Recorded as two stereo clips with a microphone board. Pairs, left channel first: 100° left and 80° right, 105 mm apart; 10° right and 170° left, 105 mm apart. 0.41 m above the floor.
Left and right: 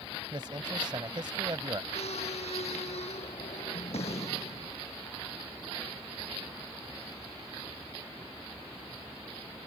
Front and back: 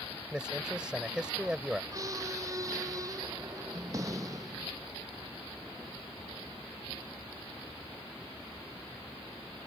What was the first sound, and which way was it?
A man speaking, 110° right.